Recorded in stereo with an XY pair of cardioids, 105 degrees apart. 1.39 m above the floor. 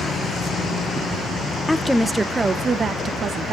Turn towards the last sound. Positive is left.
turn(degrees=-55)